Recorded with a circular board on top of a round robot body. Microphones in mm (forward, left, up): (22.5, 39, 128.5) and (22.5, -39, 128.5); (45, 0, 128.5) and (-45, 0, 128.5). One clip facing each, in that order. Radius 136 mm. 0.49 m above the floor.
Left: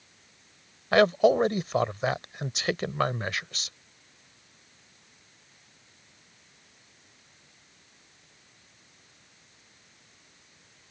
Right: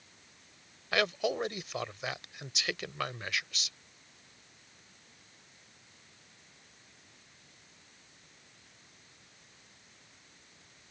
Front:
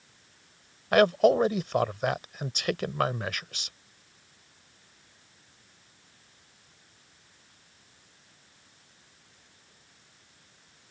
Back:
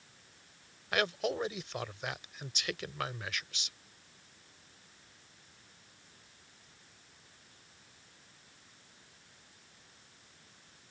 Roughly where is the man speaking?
Ahead left.